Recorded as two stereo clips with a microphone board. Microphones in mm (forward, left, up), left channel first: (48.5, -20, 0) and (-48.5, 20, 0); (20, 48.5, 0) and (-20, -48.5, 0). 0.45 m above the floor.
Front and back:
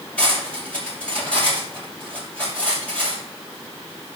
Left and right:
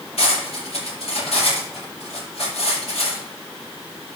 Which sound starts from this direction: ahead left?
Cutlery clinking, at 0.2 s.